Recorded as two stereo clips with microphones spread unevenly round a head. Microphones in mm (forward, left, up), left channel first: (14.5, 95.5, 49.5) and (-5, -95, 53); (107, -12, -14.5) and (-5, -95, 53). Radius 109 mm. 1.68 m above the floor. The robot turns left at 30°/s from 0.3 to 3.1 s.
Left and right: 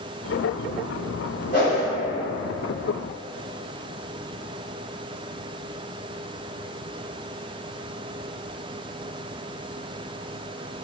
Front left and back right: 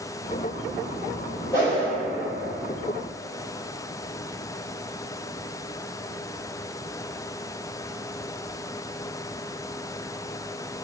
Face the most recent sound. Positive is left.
turn(degrees=85)